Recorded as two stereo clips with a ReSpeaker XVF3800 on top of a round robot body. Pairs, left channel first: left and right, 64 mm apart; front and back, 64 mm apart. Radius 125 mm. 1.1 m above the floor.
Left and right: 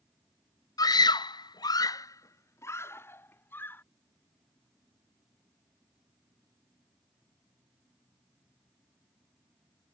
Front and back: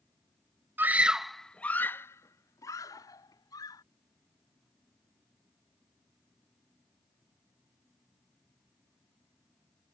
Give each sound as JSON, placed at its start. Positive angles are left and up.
{"t": 0.8, "sound": "a scream", "azimuth_deg": 120}